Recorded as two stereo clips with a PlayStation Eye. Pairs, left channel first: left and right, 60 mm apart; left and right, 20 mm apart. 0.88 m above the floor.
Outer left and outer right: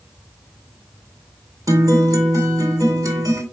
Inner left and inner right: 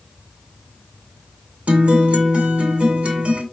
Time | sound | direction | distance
1.7 | a guitar | 75° right (ahead or behind) | 2.5 m